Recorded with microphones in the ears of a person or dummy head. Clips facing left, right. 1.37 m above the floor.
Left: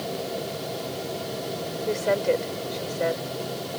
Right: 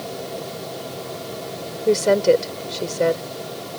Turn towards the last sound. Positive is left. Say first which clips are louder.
# right 8 dB
turn(degrees=-60)  # may be behind; listen again after turning